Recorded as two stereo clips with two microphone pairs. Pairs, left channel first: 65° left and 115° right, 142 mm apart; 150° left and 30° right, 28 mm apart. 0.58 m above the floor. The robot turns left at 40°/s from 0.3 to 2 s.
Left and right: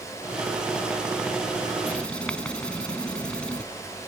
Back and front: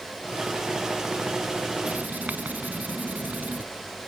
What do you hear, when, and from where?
1.8 s writing: 15° right; by 3.6 s 20° right